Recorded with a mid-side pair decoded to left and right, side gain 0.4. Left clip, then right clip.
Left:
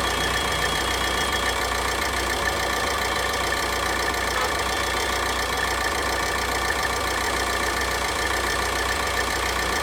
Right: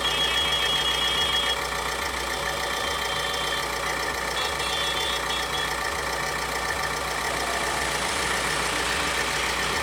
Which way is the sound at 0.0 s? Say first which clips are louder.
Even; 65° left.